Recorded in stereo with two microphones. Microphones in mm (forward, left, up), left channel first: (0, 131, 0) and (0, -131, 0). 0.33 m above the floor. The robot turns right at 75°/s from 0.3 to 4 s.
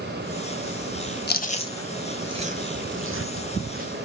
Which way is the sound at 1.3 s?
40° left (ahead or behind).